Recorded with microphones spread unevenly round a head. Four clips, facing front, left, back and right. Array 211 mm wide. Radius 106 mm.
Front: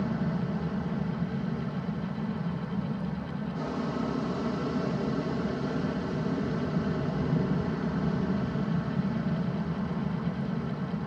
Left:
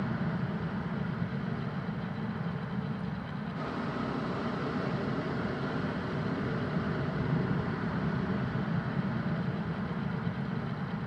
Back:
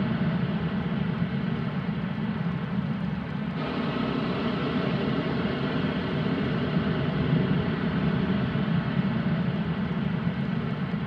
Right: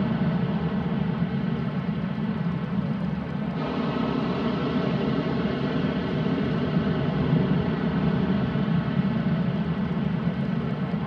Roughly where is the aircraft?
Right.